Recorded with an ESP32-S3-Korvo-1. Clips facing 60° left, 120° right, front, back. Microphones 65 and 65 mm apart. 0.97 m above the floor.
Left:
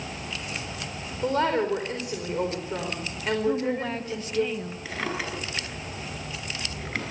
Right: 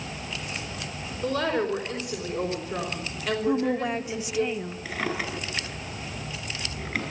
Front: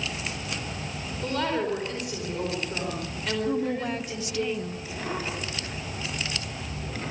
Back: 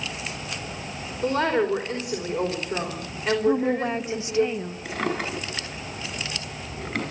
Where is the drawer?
150° left, 5.5 m.